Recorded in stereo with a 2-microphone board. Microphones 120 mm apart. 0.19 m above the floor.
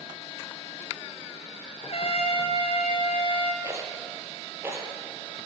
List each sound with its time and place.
1.8 s a trumpet: 55° left (ahead or behind), 1.9 m
3.6 s a rattle: 20° right (ahead or behind), 3.5 m